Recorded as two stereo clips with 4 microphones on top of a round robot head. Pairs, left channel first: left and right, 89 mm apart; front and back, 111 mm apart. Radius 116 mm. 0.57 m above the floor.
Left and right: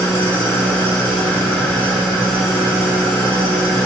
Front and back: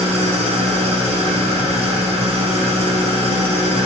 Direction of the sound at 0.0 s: 155° left.